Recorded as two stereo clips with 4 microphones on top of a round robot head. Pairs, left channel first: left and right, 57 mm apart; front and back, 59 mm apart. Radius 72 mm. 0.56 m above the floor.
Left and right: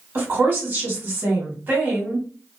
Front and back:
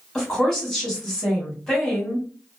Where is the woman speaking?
75° right, 1.5 m.